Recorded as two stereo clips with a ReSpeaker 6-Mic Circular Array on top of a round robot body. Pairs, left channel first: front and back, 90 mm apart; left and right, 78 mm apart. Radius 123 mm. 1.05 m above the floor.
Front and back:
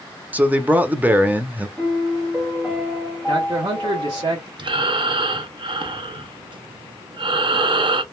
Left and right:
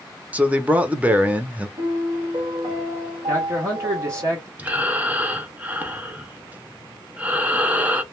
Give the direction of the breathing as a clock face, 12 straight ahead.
5 o'clock.